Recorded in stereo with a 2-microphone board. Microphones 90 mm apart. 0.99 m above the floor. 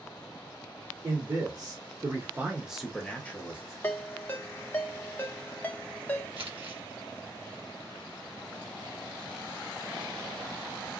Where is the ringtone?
20° left (ahead or behind), 0.6 m.